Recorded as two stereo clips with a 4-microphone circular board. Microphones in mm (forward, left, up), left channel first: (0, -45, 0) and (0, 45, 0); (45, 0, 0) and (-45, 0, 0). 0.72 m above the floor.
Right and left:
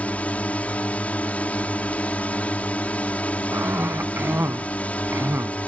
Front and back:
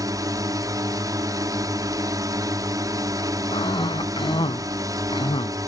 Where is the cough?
25° left.